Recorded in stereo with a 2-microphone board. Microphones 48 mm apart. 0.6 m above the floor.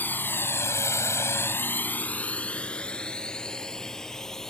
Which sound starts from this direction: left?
A drone, at 0.0 s.